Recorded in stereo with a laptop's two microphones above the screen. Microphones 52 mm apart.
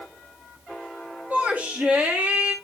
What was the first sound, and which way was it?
A shout, 30° right (ahead or behind).